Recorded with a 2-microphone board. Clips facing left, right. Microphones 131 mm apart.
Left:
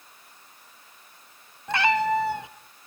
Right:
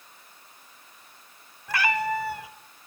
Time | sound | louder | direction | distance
1.7 | a cat meowing | left 4 dB | 25° left (ahead or behind) | 1.0 m